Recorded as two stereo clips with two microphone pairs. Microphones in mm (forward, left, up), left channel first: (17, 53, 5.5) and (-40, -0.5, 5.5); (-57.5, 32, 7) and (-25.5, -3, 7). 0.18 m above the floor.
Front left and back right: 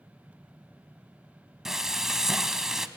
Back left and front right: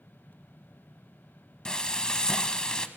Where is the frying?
150° left, 0.9 m.